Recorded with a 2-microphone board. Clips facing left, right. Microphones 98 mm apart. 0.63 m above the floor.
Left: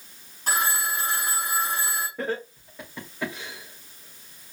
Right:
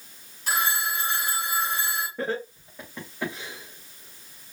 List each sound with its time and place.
0.5 s a phone ringing: 45° left (ahead or behind), 3 m
2.2 s laughter: centre (ahead or behind), 2.5 m